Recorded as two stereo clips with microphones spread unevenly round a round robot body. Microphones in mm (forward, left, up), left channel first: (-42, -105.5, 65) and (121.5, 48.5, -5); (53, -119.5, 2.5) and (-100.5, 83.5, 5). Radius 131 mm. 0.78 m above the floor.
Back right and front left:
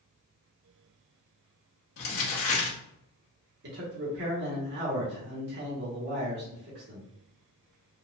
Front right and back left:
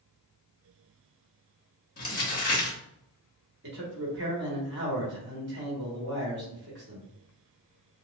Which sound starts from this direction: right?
Crumpling, at 2.0 s.